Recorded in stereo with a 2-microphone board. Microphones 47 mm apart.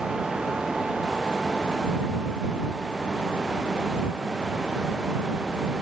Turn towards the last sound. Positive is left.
No sound to turn to.